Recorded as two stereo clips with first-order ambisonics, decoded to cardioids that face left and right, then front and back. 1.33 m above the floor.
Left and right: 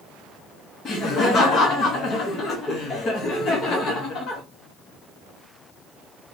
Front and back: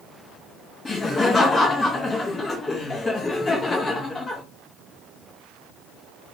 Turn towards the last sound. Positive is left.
turn(degrees=65)